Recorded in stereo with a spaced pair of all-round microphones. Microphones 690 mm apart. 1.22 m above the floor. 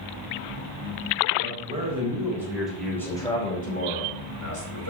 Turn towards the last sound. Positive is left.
turn(degrees=35)  # may be behind; listen again after turning